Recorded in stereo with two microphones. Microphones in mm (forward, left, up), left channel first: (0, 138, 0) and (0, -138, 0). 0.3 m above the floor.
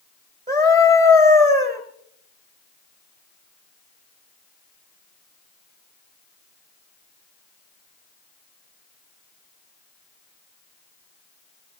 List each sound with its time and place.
0.5 s a scream: 40° right (ahead or behind), 2.5 m